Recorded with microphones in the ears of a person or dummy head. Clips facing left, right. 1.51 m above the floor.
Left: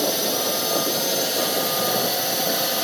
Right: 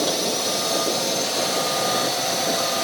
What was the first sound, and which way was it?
A drone, 5° left (ahead or behind).